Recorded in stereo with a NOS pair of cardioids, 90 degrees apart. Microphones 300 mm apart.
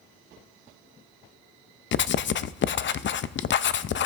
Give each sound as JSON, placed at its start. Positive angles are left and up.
{"t": 1.9, "sound": "writing", "azimuth_deg": 40, "distance_m": 0.5}